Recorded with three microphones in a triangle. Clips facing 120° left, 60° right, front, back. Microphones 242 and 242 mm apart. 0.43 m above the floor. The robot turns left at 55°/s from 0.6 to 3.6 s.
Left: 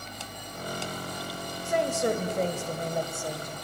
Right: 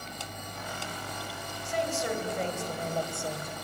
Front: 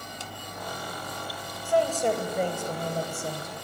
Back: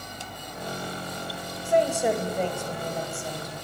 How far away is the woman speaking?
About 2 m.